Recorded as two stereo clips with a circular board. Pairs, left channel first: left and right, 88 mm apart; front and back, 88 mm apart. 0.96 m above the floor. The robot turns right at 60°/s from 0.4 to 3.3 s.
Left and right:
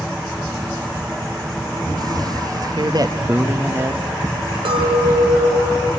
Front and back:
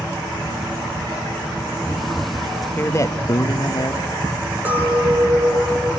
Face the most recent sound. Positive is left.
turn(degrees=-110)